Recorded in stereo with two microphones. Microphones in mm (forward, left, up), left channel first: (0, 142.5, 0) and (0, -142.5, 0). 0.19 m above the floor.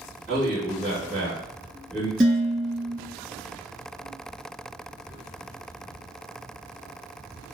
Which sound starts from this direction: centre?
Dishes clattering, at 2.2 s.